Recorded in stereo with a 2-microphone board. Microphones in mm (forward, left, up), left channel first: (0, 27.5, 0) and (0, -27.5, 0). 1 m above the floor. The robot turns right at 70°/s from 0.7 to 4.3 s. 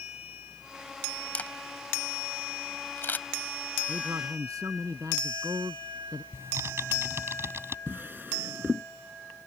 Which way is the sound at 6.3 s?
50° right (ahead or behind).